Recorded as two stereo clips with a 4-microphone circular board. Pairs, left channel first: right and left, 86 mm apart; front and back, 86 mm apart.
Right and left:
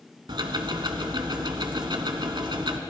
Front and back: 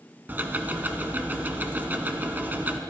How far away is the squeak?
No squeak in this recording.